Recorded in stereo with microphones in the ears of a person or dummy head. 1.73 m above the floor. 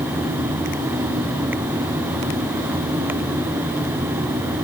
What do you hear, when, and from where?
Only background noise.